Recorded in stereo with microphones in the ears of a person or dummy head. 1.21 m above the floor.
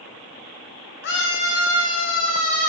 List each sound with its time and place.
1.0 s a scream: 60° left (ahead or behind), 1.9 m; by 2.7 s 70° left (ahead or behind), 3.5 m